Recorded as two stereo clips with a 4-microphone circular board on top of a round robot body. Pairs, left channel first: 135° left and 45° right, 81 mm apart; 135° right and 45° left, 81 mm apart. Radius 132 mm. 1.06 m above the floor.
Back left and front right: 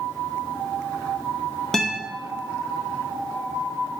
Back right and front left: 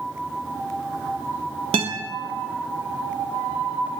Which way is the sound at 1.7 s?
50° left.